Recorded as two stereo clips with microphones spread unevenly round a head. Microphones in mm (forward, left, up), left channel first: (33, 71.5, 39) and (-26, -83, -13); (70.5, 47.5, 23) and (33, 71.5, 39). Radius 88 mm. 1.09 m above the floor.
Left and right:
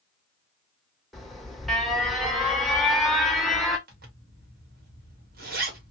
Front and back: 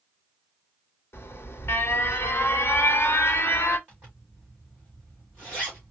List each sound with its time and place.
1.1 s an alarm: 25° right, 1.0 m
3.9 s a zipper: 135° right, 1.7 m